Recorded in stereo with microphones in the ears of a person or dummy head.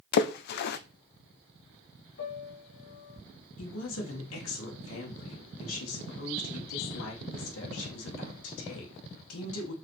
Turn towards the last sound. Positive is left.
turn(degrees=85)